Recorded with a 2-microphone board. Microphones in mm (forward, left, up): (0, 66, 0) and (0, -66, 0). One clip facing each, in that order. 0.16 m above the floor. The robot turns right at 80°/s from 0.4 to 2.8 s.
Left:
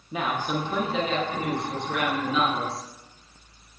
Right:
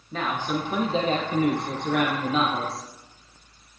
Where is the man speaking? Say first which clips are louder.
Even; 170° left, 7 m; by 2.9 s straight ahead, 7 m.